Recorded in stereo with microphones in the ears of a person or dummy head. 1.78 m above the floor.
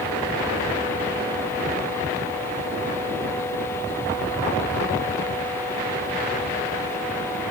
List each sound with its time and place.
Only background noise.